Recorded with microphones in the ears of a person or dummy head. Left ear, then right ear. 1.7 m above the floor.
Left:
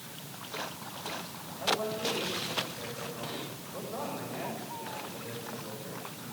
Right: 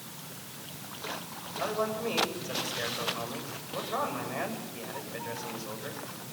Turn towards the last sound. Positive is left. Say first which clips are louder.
# even
turn(degrees=-60)  # may be behind; listen again after turning